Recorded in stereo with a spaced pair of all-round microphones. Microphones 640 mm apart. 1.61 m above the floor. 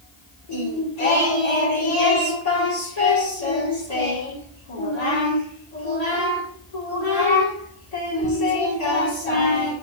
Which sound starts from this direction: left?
Singing, at 0.5 s.